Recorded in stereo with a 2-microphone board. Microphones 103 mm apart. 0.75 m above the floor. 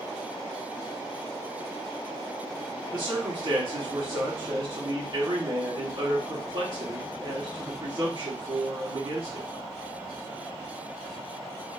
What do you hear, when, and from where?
2.9 s a man speaking: 45° right (ahead or behind), 1.6 m